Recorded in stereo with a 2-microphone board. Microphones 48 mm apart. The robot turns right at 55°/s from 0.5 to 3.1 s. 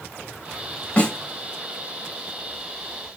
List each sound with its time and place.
1.0 s a snare drum: 30° left (ahead or behind), 1.0 m; by 1.1 s 20° left (ahead or behind), 1.0 m